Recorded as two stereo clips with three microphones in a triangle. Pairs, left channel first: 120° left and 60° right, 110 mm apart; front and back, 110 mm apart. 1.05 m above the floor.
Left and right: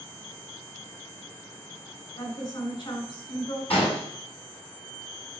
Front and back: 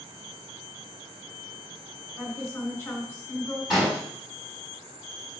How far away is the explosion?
About 5.5 m.